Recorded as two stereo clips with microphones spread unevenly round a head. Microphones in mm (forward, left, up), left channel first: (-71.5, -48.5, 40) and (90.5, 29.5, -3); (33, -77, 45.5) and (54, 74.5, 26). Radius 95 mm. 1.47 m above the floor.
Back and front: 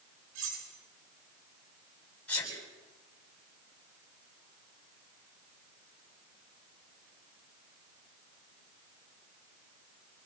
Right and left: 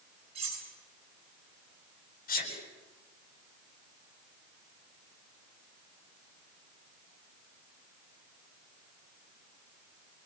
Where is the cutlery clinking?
35° left, 10 m.